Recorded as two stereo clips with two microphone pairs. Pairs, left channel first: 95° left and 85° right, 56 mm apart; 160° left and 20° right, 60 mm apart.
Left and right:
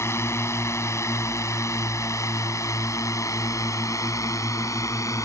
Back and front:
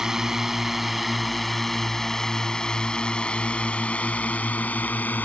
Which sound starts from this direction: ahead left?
A drone, at 0.0 s.